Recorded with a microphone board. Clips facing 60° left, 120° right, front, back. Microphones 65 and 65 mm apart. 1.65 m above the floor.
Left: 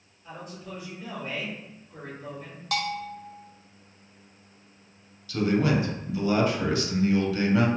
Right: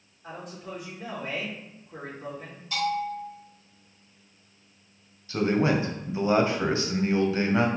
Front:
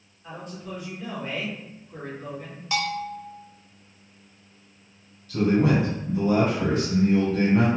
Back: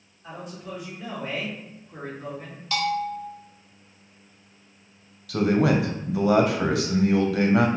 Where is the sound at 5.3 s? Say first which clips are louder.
Even, even; 175° left, 0.7 m.